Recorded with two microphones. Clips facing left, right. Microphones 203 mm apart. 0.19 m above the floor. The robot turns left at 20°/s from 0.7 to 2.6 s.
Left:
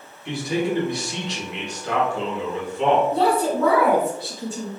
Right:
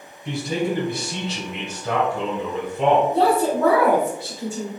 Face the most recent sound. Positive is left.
turn(degrees=-25)  # may be behind; listen again after turning